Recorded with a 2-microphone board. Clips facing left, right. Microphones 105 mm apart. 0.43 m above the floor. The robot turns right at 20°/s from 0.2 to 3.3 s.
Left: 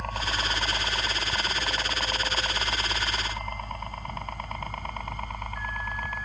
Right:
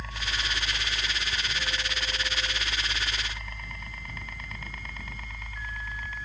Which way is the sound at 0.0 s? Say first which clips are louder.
Left 5 dB; 60° left (ahead or behind).